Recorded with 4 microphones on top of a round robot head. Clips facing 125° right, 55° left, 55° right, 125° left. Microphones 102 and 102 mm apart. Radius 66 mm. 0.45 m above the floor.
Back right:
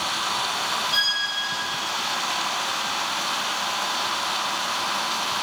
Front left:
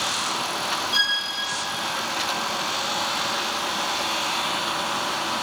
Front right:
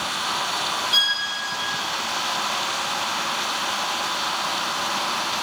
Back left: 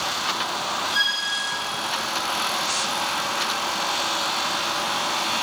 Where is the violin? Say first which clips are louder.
Front left 1 dB, back left 1 dB; 35° right, 9.5 m.